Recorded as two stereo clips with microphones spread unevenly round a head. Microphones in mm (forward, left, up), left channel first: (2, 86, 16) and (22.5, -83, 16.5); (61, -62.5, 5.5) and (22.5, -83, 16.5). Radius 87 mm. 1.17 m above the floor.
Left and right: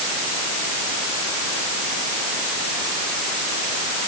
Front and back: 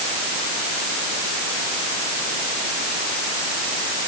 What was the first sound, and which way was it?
Only background noise.